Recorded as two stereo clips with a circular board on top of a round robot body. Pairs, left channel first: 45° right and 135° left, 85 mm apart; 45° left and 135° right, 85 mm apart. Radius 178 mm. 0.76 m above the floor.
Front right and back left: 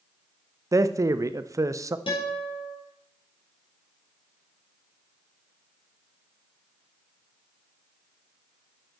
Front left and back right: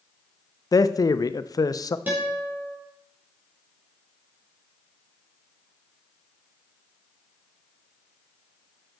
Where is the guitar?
65° right, 3.5 m.